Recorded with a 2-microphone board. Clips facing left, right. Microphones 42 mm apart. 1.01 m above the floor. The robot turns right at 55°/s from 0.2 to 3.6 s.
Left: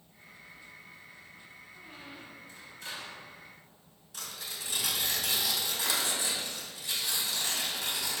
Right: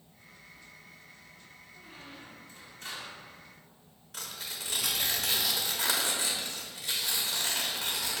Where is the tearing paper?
70° right (ahead or behind), 1.5 m.